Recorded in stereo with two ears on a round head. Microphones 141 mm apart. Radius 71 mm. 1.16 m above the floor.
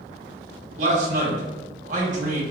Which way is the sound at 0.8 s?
50° right (ahead or behind).